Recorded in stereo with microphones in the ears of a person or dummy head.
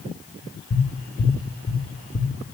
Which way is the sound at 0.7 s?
30° left (ahead or behind).